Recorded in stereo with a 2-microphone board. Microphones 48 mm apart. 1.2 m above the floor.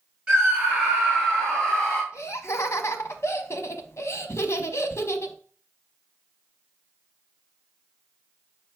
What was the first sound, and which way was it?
A scream, 20° right (ahead or behind).